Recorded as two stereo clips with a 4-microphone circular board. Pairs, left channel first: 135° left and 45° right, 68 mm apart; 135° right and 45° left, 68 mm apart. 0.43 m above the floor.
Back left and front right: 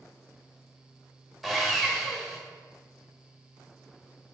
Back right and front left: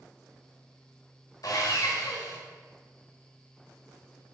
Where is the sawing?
135° right, 0.7 m.